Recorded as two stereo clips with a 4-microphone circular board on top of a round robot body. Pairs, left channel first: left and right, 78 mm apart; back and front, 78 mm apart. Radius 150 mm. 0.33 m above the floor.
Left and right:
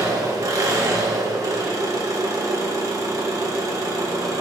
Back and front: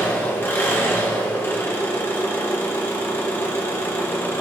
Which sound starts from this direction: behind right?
An engine running, at 0.0 s.